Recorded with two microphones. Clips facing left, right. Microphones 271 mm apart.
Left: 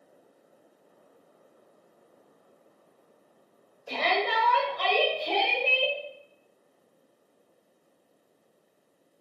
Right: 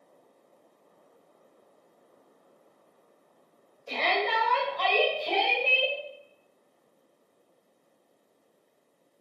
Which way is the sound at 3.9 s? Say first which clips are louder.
Left 1 dB; 10° left (ahead or behind).